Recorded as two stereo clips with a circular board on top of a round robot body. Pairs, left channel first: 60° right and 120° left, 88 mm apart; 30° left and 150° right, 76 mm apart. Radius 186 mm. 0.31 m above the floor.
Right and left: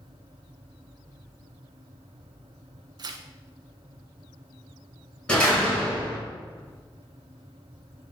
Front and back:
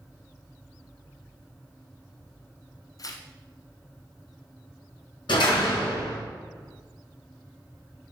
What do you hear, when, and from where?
3.0 s tearing paper: 75° left, 0.8 m
5.3 s a door slam: 20° left, 5 m